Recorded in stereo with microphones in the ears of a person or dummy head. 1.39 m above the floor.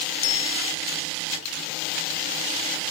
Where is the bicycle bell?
90° left.